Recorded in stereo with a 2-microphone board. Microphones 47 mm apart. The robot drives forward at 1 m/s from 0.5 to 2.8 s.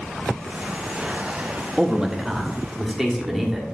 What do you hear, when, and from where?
1.8 s a man speaking: 15° right (ahead or behind), 1.0 m; by 3.8 s 10° right (ahead or behind), 1.9 m